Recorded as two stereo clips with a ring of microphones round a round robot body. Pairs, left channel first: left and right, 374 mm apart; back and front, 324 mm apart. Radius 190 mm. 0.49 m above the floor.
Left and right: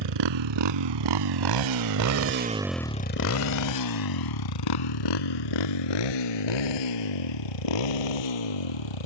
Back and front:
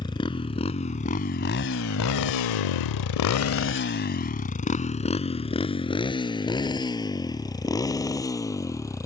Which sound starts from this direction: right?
A motorcycle, at 0.0 s.